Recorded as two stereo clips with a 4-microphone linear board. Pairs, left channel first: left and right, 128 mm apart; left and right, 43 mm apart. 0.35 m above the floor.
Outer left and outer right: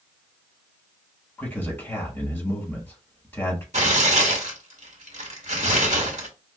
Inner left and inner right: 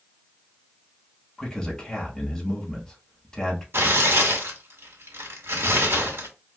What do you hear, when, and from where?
1.4 s a man speaking: 10° left (ahead or behind), 2.5 m
3.7 s tearing paper: 65° right (ahead or behind), 1.2 m